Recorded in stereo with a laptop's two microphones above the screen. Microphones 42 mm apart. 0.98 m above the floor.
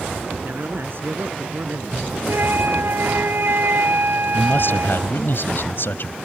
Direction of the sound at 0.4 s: 60° right (ahead or behind).